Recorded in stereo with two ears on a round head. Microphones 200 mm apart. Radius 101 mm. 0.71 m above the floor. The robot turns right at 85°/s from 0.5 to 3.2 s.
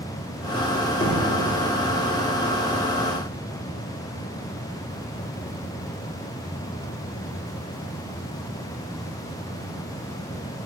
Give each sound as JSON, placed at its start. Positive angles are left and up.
{"t": 1.0, "sound": "knocking", "side_deg": 30, "distance_m": 1.0}